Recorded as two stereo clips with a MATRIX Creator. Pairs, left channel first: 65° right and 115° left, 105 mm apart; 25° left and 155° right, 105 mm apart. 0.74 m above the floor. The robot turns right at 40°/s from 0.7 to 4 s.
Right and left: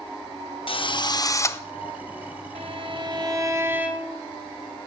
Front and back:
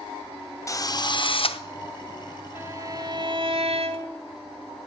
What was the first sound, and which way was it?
A drill, 35° right.